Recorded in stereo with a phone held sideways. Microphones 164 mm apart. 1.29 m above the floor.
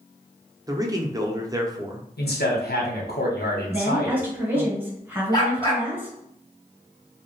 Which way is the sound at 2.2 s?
75° left (ahead or behind).